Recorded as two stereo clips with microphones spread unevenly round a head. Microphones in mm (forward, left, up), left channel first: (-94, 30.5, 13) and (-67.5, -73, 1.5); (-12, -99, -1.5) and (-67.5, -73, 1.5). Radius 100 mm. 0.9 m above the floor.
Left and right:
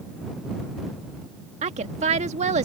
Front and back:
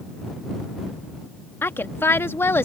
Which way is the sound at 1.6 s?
75° right.